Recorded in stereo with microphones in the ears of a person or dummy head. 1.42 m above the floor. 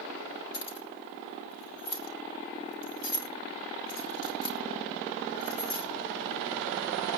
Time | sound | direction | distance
0.5 | keys jangling | 80° left | 3 m